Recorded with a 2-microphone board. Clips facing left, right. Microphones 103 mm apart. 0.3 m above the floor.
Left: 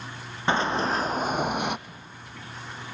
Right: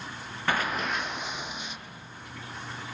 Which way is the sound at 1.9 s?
35° left (ahead or behind).